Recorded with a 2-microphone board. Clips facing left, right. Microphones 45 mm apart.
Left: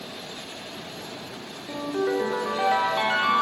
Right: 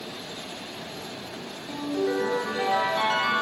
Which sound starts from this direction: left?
A ringtone, at 1.7 s.